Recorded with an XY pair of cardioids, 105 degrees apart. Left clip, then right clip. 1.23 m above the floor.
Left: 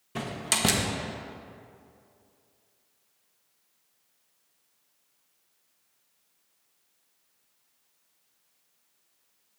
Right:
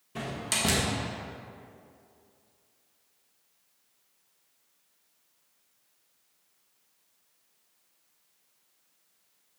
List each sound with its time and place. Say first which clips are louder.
0.1 s a door slam: left 2 dB; 40° left, 0.9 m